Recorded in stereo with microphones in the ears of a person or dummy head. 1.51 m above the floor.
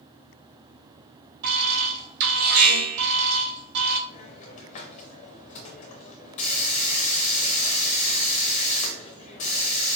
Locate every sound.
1.4 s an alarm: 55° right (ahead or behind), 1.9 m
4.1 s a hiss: 30° left (ahead or behind), 0.5 m